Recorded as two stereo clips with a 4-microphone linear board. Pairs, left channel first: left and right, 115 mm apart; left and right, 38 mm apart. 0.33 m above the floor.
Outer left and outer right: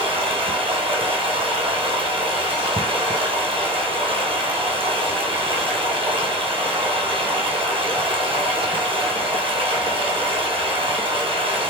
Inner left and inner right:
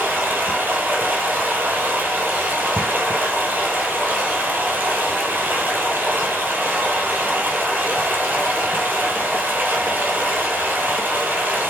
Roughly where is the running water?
Right.